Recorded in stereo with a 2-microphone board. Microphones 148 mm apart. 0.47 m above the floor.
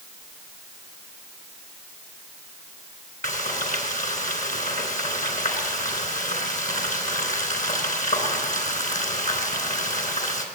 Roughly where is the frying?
Left.